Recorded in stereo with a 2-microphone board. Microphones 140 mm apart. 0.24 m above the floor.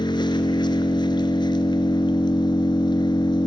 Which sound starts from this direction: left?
An engine running, at 0.0 s.